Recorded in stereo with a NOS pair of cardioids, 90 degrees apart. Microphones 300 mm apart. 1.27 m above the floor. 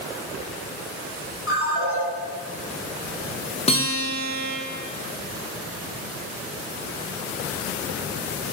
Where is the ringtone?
50° left, 1.9 m.